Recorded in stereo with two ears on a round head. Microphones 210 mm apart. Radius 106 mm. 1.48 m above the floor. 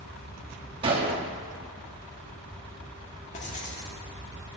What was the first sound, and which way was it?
A gunshot, 25° right (ahead or behind).